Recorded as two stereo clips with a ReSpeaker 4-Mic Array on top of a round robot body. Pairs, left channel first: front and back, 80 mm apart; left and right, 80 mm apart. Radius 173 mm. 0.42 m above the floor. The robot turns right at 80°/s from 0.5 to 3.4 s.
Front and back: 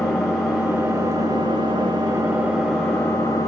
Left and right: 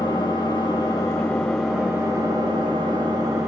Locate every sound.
0.0 s an engine running: 95° left, 2.5 m; by 3.5 s 35° right, 2.5 m